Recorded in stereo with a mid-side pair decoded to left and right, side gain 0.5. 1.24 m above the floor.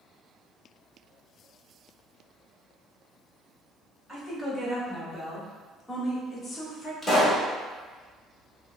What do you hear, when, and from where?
4.1 s a woman speaking: 15° right, 1.8 m; by 6.9 s 40° left, 1.3 m
7.0 s a pop: 10° left, 1.5 m